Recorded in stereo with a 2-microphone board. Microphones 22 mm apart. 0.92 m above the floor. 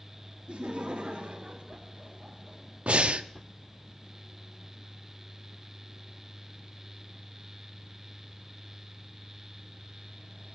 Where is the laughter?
70° right (ahead or behind), 2 m; by 2.6 s 65° right (ahead or behind), 3.5 m.